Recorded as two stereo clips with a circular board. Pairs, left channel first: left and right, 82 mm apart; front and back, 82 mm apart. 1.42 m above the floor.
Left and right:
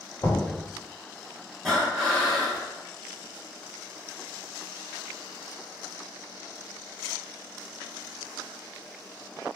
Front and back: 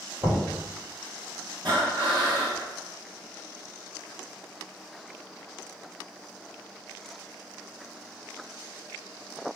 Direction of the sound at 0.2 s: 130° left.